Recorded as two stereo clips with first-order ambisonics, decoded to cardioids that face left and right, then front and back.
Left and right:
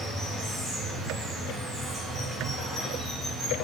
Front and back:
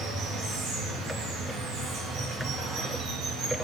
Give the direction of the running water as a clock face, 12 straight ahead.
6 o'clock.